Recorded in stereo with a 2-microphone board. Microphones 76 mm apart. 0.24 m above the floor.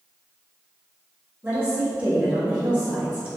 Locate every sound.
1.4 s a woman speaking: 20° right (ahead or behind), 1.7 m